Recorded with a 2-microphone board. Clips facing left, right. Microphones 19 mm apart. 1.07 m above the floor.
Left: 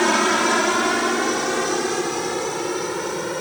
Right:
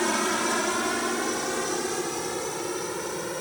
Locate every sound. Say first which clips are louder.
0.0 s a helicopter: left 7 dB; 25° left (ahead or behind); by 3.4 s 20° left (ahead or behind)